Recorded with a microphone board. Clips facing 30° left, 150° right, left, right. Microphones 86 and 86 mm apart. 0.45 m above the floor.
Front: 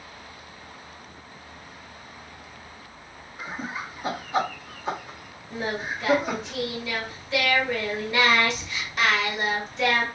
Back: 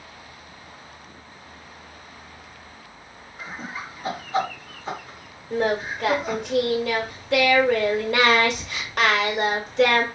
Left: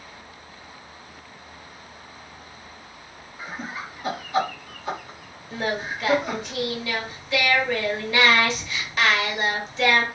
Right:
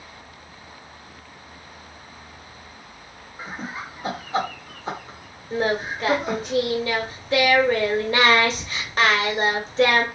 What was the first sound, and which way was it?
Laughter, 45° right.